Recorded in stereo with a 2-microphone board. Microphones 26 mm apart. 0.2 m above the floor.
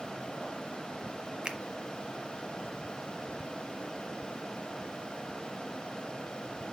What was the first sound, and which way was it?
A finger snap, 35° right (ahead or behind).